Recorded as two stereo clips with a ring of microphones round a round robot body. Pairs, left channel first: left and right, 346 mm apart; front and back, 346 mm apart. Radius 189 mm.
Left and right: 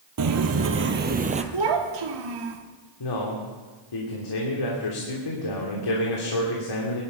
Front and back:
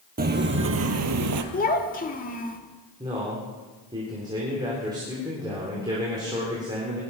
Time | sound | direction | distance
0.2 | footsteps | 120° right | 1.7 m
1.5 | a child speaking | 65° right | 1.9 m
3.0 | a man speaking | 100° left | 3 m